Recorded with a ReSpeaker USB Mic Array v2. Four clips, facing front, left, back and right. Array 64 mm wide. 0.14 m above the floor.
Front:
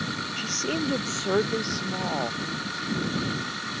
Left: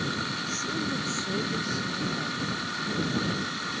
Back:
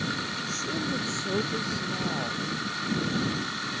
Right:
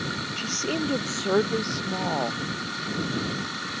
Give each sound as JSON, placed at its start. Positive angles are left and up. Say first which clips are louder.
{"t": 0.4, "sound": "a woman speaking", "louder": "right 3 dB, front 3 dB", "azimuth_deg": -45}